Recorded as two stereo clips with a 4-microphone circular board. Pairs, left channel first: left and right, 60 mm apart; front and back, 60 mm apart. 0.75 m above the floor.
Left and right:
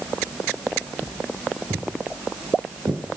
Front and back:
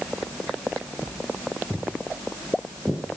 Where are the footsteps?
80° right, 2.5 m; by 3.2 s 85° right, 3.5 m.